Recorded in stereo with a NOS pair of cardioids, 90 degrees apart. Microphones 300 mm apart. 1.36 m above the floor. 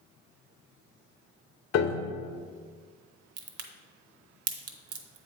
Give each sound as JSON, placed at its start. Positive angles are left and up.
{"t": 1.7, "sound": "a piano", "azimuth_deg": 60, "distance_m": 0.9}
{"t": 3.4, "sound": "a crack", "azimuth_deg": -55, "distance_m": 1.0}